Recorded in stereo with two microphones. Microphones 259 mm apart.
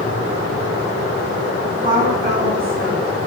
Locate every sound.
1.6 s a woman speaking: 20° right (ahead or behind), 1.0 m; by 3.2 s 65° right (ahead or behind), 2.5 m